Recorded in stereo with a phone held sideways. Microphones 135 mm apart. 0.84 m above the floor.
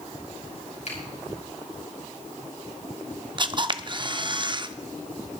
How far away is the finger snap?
About 6 m.